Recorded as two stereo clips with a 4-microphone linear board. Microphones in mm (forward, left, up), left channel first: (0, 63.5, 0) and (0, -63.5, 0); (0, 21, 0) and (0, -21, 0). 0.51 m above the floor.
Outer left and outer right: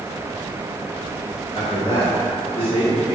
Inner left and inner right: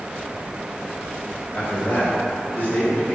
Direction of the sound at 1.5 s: 30° left (ahead or behind).